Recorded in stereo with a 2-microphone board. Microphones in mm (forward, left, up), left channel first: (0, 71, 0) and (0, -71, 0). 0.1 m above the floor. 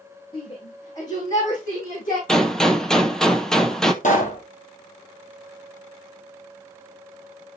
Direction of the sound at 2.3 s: 5° left (ahead or behind).